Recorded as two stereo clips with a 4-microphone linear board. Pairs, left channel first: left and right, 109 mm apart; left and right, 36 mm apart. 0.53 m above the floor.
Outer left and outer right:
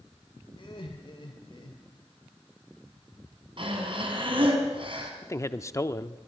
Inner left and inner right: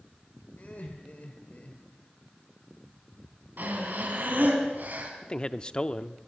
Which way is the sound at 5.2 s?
30° left (ahead or behind).